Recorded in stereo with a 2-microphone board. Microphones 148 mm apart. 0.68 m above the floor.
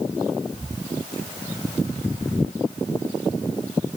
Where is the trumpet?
No trumpet in this recording.